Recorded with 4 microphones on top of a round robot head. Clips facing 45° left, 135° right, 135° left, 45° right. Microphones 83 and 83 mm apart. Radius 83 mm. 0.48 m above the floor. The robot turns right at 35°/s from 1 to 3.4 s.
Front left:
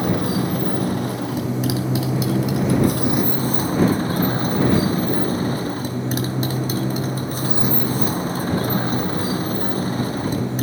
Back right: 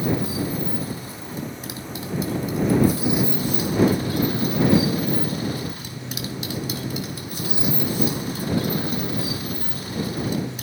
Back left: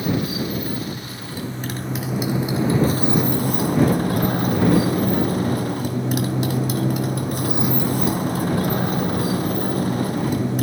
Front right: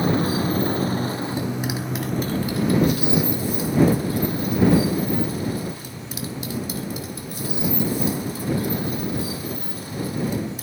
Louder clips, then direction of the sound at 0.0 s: Front left 3 dB, front right 2 dB; 10° left.